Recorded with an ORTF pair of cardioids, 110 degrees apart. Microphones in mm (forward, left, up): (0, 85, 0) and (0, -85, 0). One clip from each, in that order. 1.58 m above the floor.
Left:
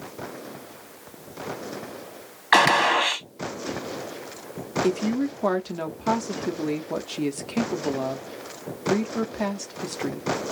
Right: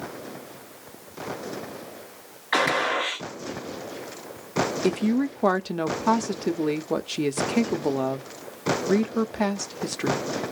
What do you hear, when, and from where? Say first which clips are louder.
2.5 s a gunshot: left 5 dB; 60° left, 1.1 m
4.8 s a woman speaking: even; 15° right, 0.6 m